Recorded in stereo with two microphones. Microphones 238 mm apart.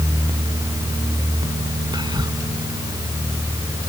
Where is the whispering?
20° right (ahead or behind).